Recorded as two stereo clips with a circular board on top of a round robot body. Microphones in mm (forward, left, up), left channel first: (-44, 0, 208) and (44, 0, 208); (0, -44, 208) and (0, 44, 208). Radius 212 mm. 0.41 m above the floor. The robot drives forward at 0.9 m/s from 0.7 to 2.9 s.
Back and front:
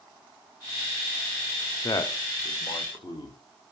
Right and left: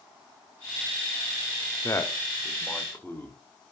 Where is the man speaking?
140° right, 1.2 m; by 3.4 s 160° right, 2.0 m.